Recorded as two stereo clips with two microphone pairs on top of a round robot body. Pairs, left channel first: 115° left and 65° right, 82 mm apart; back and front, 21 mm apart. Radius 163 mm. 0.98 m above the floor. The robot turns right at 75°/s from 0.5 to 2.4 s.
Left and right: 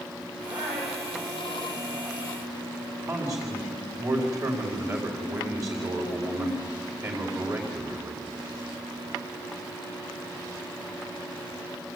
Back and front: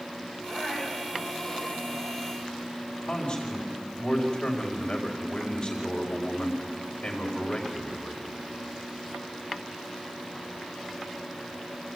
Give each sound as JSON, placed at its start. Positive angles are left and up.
{"t": 0.5, "sound": "a woman speaking", "azimuth_deg": -125, "distance_m": 5.0}
{"t": 3.1, "sound": "a man speaking", "azimuth_deg": -110, "distance_m": 4.0}